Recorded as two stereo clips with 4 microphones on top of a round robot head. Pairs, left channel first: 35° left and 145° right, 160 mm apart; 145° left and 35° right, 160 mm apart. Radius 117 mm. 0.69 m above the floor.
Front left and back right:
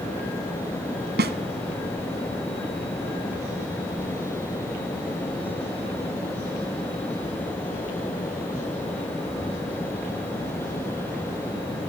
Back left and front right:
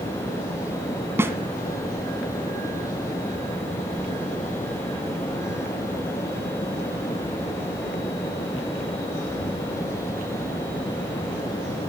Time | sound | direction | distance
1.2 | a snare drum | 115° right | 1.6 m